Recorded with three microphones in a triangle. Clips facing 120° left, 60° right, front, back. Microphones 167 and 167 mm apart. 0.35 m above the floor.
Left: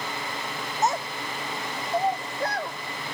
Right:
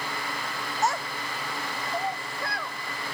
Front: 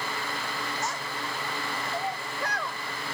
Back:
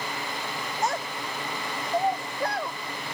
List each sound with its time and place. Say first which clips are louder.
0.8 s a child speaking: left 2 dB, back 5 dB; 175° right; by 2.8 s 125° left